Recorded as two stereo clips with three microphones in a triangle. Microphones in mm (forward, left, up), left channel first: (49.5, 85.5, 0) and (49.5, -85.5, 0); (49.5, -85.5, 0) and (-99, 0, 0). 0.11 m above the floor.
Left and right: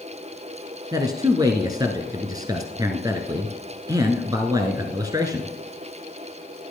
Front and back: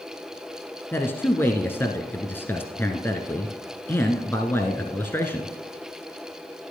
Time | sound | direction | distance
0.9 | a man speaking | 85° right | 1.1 m